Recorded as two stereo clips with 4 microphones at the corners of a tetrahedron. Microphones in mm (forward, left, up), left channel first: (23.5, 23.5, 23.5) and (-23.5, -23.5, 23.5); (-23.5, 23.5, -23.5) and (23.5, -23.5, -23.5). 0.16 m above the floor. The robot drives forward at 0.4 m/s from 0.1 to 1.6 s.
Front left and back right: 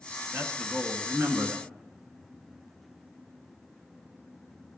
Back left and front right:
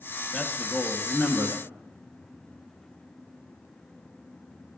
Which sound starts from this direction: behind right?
A man speaking, at 0.3 s.